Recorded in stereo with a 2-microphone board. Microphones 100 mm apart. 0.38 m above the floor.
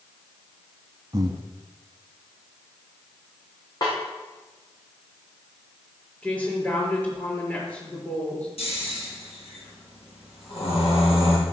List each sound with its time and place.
1.1 s breathing: 40° right (ahead or behind), 1.1 m
3.8 s a snare drum: 40° left (ahead or behind), 5.5 m
6.2 s a woman speaking: 15° left (ahead or behind), 6 m
8.6 s snoring: 80° left, 4.5 m